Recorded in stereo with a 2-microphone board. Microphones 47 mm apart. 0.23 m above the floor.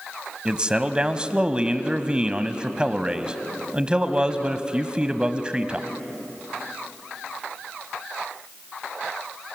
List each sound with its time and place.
0.5 s a man speaking: 20° right (ahead or behind), 1.0 m